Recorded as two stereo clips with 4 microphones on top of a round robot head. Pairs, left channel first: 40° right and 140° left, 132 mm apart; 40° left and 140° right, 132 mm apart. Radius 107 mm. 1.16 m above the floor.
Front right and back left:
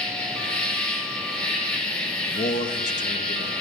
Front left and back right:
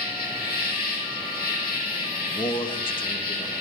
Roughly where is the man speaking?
Ahead.